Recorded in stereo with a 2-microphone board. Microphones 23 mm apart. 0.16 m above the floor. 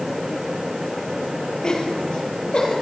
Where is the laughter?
35° left (ahead or behind), 4 m; by 2.7 s 50° left (ahead or behind), 5 m.